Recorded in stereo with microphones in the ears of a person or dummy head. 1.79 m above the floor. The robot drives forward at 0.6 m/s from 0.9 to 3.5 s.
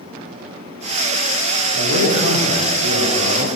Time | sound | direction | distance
1.7 | a man speaking | 75° right (ahead or behind) | 8 m